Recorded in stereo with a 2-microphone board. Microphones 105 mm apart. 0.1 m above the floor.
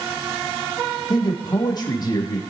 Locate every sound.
1.1 s a man speaking: 40° left (ahead or behind), 4 m